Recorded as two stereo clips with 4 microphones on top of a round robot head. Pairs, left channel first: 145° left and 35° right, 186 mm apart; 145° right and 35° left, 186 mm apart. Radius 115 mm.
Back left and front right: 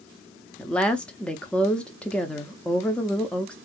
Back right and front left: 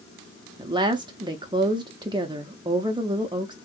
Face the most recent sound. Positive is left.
turn(degrees=70)